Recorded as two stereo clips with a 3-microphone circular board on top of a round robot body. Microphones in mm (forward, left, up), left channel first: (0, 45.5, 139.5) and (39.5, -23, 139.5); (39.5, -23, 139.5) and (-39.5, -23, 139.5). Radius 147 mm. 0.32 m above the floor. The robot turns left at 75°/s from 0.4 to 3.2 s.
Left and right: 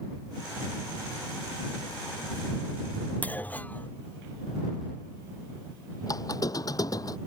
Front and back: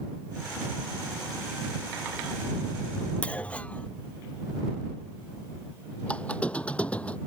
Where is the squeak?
75° left.